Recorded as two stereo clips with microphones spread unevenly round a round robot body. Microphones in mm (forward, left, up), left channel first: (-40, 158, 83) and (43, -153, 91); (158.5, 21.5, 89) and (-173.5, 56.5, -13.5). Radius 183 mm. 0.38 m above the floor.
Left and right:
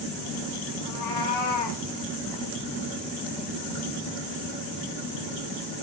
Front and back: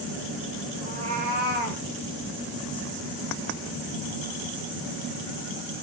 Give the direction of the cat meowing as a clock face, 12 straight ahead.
9 o'clock.